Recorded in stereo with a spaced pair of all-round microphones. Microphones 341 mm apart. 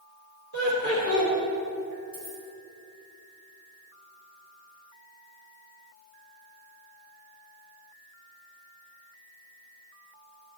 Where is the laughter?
45° left (ahead or behind), 3.5 m.